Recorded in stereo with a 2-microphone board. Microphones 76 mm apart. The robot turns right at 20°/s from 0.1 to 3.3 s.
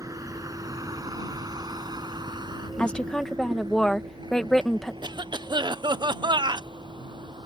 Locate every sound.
0.0 s a vehicle: 45° right (ahead or behind); by 7.5 s 80° right
2.8 s a woman speaking: 15° left (ahead or behind); by 4.9 s 5° left (ahead or behind)
5.0 s a cough: 70° right (ahead or behind)